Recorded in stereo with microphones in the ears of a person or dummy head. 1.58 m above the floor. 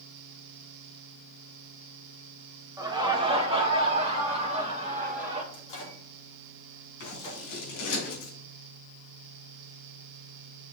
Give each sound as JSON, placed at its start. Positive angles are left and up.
{"t": 2.8, "sound": "laughter", "side_deg": -20, "distance_m": 1.3}
{"t": 5.5, "sound": "a microwave", "side_deg": 35, "distance_m": 2.5}
{"t": 7.0, "sound": "scissors", "side_deg": 55, "distance_m": 4.0}